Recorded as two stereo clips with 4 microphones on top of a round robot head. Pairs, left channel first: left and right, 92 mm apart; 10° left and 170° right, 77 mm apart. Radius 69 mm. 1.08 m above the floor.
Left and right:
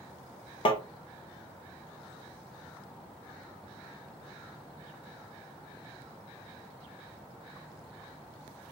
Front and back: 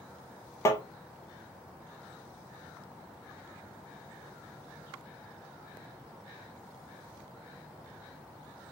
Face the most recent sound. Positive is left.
turn(degrees=60)